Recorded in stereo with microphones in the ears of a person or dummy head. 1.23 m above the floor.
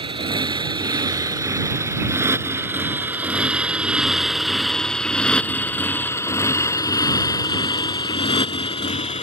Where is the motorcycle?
25° right (ahead or behind); by 9.2 s 35° left (ahead or behind).